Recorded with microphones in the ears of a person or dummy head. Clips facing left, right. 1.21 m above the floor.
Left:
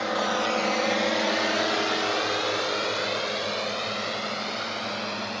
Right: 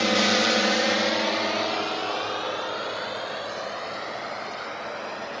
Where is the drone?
40° right (ahead or behind); by 5.4 s 45° left (ahead or behind).